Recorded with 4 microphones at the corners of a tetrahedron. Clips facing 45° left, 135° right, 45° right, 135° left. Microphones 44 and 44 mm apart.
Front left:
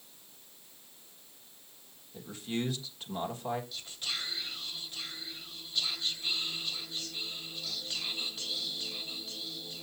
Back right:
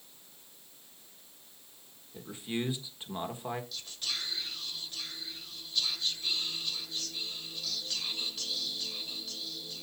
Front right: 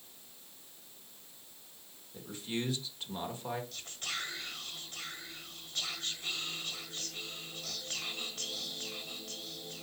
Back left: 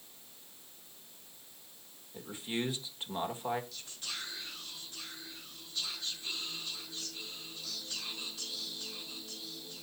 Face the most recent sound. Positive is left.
turn(degrees=-35)